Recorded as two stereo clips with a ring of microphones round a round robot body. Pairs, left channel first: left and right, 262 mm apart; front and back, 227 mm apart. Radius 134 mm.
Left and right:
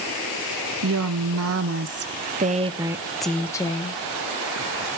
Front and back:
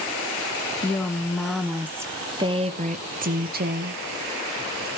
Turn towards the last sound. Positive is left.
turn(degrees=140)